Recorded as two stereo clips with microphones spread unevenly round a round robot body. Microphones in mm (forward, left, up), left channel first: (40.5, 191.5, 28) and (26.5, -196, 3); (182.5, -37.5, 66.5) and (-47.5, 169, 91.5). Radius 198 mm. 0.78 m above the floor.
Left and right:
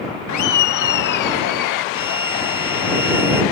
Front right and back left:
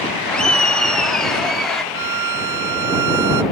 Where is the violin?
175° right.